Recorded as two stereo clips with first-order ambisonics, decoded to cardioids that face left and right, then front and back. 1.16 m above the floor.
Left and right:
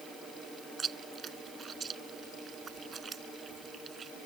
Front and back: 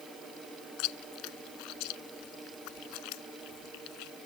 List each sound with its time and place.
0.8 s chewing: 25° right